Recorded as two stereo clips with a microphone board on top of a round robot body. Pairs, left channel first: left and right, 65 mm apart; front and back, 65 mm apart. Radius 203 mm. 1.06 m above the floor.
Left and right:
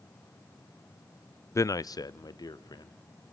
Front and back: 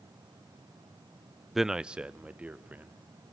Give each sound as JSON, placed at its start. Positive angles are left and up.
{"t": 1.6, "sound": "a man speaking", "azimuth_deg": 95, "distance_m": 0.5}